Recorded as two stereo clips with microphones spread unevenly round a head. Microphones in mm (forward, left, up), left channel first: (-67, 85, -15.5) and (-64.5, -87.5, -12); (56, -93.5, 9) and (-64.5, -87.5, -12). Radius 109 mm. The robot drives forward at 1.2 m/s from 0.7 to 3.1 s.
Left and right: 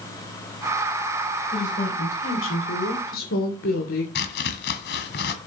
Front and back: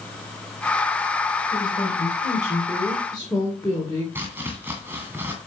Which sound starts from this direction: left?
Chopping, at 4.2 s.